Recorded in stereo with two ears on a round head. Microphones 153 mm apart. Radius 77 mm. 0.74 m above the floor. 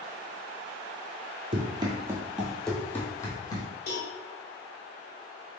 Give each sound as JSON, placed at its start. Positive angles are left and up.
{"t": 1.5, "sound": "running footsteps", "side_deg": -35, "distance_m": 0.8}
{"t": 3.9, "sound": "a cowbell", "side_deg": 60, "distance_m": 1.2}